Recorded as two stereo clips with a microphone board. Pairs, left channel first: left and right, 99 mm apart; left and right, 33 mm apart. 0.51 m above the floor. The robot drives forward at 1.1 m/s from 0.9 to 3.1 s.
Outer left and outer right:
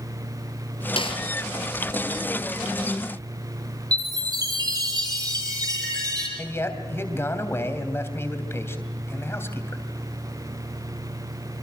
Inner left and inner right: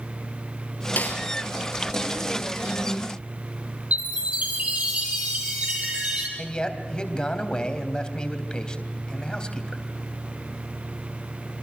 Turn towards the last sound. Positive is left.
turn(degrees=25)  # may be behind; listen again after turning